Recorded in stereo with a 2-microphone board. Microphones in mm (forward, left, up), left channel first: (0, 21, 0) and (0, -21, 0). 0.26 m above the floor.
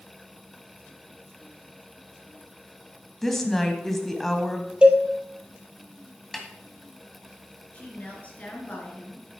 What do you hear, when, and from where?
3.2 s a woman speaking: 5° left (ahead or behind), 1.6 m
4.8 s a cowbell: 20° right (ahead or behind), 1.4 m
6.3 s a snare drum: centre (ahead or behind), 1.6 m
7.7 s a woman speaking: 35° left (ahead or behind), 4 m